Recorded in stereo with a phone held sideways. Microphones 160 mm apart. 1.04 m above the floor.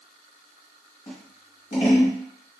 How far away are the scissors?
About 1.3 m.